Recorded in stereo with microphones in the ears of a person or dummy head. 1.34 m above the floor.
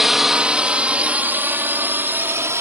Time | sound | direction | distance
0.0 | a drone | centre (ahead or behind) | ?